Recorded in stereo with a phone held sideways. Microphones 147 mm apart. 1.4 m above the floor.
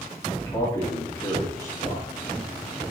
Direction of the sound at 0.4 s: 20° left (ahead or behind).